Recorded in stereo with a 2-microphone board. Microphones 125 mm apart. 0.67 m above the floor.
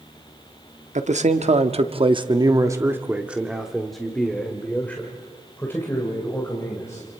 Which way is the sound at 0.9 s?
65° right (ahead or behind).